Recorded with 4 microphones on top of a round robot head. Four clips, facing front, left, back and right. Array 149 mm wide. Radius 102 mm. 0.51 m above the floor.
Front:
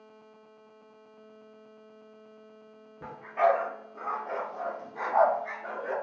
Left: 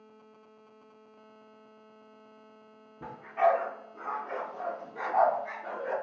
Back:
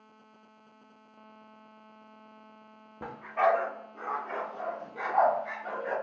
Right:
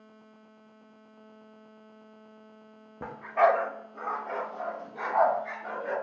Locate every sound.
3.0 s a dog barking: 115° right, 0.5 m; by 5.9 s 25° right, 1.8 m